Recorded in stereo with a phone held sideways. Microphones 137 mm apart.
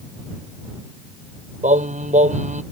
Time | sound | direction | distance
1.6 | singing | 65° right (ahead or behind) | ?